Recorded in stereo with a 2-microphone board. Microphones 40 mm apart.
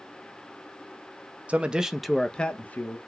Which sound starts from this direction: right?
A man speaking, at 1.5 s.